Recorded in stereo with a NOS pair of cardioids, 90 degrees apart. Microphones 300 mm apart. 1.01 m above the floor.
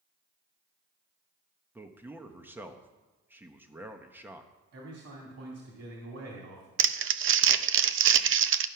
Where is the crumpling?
40° right, 0.5 m.